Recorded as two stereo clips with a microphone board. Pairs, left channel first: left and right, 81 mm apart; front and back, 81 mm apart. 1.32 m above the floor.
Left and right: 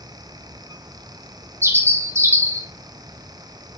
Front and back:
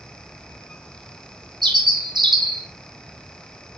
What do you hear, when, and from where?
1.6 s a bird: 150° right, 1.0 m